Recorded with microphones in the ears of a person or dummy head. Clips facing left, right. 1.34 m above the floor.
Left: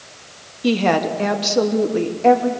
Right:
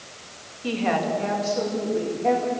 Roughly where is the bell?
I don't hear a bell.